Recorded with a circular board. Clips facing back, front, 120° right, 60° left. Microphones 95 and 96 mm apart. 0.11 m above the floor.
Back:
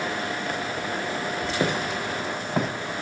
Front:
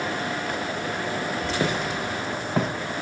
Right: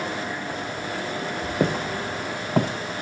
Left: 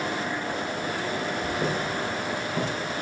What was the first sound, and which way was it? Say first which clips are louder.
Footsteps: back 2 dB, right 3 dB; 95° right.